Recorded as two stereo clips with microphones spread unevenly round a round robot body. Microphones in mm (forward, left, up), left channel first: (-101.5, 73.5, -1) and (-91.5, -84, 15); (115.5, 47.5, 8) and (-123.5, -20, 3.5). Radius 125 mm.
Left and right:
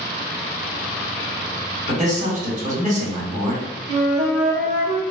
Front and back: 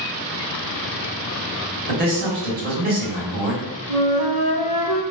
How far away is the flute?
About 0.6 m.